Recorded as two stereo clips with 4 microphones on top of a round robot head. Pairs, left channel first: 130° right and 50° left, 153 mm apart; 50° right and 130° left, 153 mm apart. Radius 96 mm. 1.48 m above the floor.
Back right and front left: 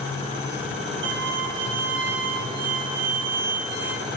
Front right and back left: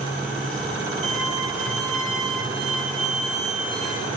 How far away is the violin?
About 1.6 m.